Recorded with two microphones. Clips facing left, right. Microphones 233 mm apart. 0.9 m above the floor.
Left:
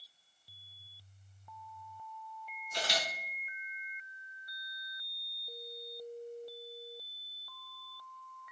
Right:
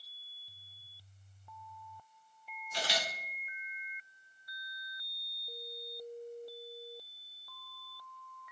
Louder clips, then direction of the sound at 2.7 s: Even; 45° left (ahead or behind).